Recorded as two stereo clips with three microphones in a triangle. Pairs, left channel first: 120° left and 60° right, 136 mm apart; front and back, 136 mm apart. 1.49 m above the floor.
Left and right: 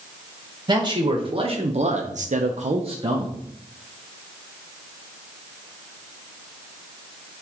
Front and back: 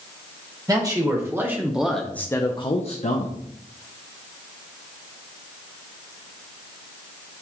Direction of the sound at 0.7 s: 120° right.